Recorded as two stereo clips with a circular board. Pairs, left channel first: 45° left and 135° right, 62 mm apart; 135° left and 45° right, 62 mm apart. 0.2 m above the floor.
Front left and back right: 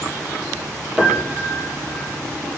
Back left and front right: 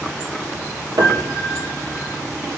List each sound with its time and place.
1.0 s a piano: 65° right, 2.5 m